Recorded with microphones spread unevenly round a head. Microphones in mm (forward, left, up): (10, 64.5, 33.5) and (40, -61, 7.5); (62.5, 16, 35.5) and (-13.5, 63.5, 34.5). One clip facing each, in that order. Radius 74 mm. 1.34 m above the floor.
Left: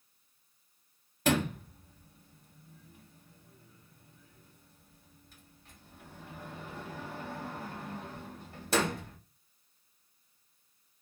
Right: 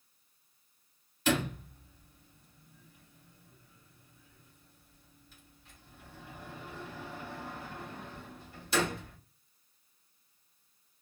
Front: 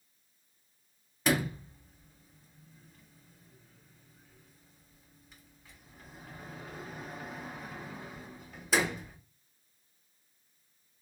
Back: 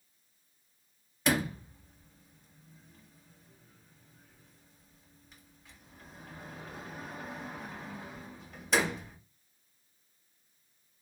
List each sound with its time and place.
1.2 s a sliding door: 55° left, 1.2 m